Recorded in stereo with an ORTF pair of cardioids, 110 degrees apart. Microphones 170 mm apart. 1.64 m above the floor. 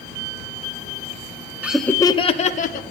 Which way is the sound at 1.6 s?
10° right.